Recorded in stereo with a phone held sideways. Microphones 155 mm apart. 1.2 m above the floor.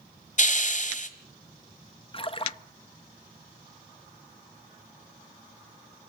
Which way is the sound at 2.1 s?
35° left (ahead or behind).